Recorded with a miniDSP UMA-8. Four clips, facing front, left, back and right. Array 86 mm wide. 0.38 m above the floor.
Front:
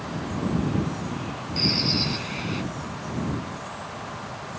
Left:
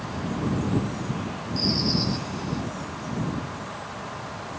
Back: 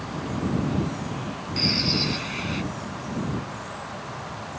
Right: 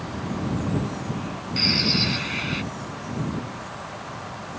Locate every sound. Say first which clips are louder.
1.6 s a bird: even, even; 95° right